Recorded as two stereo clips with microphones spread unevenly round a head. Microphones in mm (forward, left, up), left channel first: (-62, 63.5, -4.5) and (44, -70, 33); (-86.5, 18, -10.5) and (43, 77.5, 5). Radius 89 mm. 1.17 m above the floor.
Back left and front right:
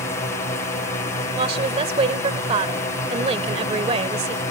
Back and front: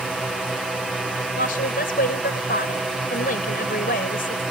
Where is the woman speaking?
110° right.